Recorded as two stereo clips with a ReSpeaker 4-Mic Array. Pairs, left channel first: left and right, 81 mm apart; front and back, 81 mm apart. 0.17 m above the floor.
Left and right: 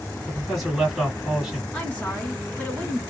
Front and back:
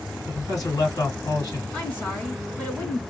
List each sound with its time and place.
0.3 s a man speaking: 5° right, 2 m
1.7 s a woman speaking: 40° left, 1.5 m